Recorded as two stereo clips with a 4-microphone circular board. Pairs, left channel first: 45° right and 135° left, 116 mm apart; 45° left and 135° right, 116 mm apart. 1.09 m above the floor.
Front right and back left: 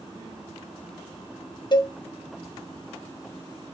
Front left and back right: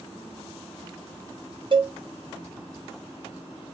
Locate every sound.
1.7 s a cowbell: 95° right, 0.5 m